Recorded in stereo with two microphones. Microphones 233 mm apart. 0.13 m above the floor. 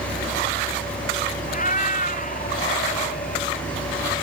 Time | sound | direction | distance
1.5 | a cat meowing | 35° left (ahead or behind) | ?